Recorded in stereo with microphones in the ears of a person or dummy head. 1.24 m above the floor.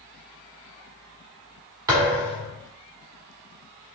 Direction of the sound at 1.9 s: 20° right (ahead or behind).